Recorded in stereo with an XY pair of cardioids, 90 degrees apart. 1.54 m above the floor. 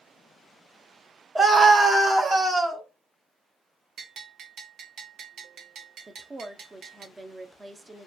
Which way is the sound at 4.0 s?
65° right.